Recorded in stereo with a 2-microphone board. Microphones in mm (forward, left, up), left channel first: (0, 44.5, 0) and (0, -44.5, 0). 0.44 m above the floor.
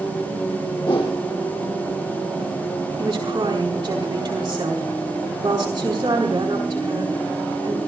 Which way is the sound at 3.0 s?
45° right (ahead or behind).